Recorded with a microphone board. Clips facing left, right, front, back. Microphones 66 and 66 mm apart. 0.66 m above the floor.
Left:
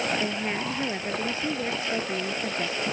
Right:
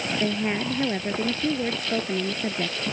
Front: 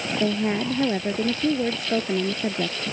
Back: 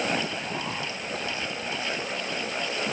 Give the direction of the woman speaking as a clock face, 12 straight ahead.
12 o'clock.